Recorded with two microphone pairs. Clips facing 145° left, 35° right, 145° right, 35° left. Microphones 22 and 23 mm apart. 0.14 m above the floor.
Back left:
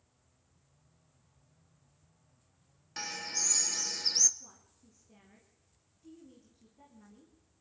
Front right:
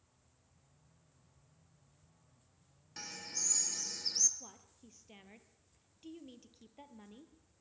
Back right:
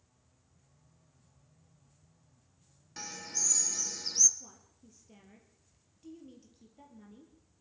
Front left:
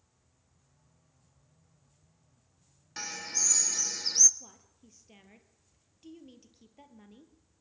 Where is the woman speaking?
15° right, 3.5 m.